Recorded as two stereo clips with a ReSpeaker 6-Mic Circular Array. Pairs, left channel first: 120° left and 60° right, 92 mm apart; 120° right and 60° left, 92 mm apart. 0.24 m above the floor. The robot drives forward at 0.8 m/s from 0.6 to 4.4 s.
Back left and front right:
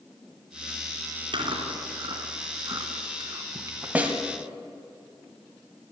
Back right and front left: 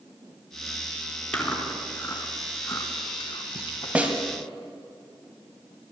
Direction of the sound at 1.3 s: 40° right.